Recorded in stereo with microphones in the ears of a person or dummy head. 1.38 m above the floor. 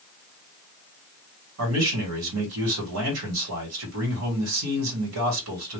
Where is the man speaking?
75° right (ahead or behind), 1.9 m.